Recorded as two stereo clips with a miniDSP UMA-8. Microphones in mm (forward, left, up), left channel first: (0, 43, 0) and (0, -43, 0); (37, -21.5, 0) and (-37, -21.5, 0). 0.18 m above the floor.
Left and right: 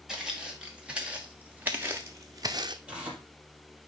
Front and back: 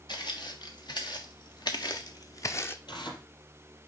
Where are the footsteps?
5° right, 2 m; by 2.8 s 60° right, 0.7 m.